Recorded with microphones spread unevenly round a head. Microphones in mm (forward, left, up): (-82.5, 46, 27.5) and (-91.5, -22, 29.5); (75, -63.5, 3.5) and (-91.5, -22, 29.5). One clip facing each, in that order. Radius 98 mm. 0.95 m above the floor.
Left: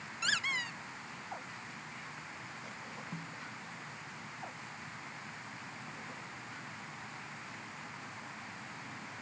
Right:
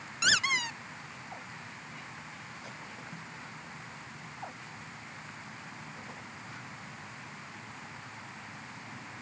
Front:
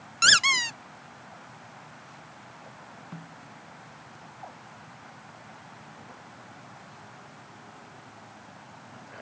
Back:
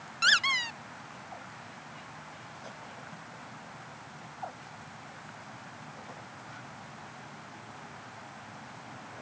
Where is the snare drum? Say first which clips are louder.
Even, front 3 dB; 25° left.